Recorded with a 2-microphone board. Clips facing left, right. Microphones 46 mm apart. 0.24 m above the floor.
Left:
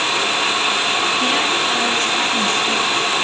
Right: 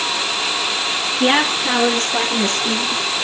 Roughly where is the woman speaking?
Right.